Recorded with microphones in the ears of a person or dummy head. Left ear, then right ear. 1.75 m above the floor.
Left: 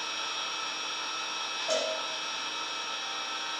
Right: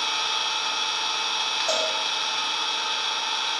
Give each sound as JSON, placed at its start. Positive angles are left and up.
{"t": 0.0, "sound": "an engine running", "side_deg": -45, "distance_m": 0.8}
{"t": 1.7, "sound": "a cowbell", "side_deg": -45, "distance_m": 6.0}